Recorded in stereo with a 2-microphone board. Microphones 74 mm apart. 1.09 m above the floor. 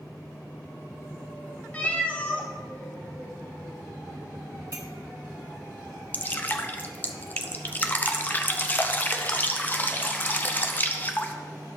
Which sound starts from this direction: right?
A clink, at 4.7 s.